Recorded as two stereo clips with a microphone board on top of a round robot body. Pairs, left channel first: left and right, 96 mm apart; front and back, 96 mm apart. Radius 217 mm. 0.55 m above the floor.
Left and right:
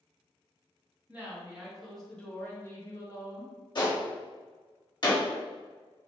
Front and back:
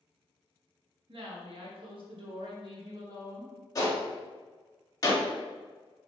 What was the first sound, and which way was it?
A woman speaking, 165° right.